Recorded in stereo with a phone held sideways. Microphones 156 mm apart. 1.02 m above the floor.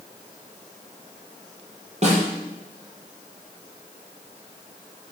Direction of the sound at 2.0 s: 50° right (ahead or behind).